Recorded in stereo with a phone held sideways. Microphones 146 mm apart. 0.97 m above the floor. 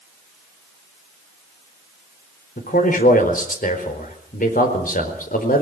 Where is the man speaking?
70° left (ahead or behind), 4 m.